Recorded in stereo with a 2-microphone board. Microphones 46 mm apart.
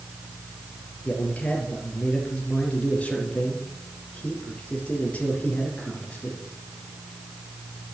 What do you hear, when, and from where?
1.1 s a man speaking: 30° left (ahead or behind), 4.5 m